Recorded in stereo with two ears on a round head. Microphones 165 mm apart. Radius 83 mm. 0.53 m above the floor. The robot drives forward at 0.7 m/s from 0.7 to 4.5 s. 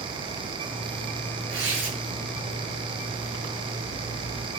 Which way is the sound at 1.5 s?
65° right (ahead or behind).